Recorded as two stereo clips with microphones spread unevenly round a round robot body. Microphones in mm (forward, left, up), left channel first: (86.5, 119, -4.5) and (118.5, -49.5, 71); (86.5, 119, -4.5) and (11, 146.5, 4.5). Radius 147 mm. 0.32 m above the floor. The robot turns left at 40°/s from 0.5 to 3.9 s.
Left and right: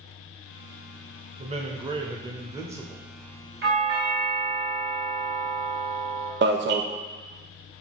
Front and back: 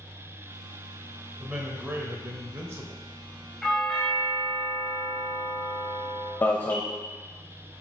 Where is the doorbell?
100° right, 2.5 m; by 6.3 s 110° right, 2.5 m.